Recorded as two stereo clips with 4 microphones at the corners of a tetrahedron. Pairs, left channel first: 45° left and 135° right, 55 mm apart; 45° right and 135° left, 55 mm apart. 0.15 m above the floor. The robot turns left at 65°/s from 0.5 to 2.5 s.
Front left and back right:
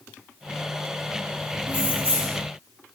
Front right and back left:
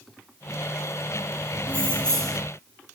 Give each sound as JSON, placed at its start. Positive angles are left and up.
{"t": 1.7, "sound": "keys jangling", "azimuth_deg": -85, "distance_m": 0.9}